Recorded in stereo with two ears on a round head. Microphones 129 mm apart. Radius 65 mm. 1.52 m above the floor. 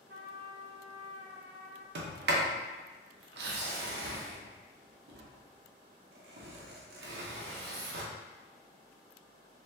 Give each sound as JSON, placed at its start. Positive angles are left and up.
{"t": 0.1, "sound": "a trumpet", "side_deg": -75, "distance_m": 0.8}
{"t": 1.9, "sound": "a sliding door", "side_deg": -75, "distance_m": 0.6}